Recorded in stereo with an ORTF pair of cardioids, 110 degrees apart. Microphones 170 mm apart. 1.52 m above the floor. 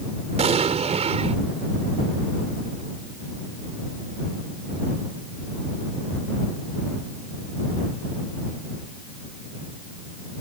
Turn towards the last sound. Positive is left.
turn(degrees=-40)